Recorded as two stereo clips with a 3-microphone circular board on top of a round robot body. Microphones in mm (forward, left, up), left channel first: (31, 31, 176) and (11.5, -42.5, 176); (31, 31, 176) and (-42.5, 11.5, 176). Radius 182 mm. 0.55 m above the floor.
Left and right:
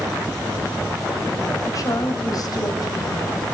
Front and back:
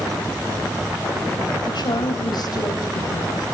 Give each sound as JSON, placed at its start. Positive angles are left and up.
{"t": 1.6, "sound": "a woman speaking", "azimuth_deg": 35, "distance_m": 4.5}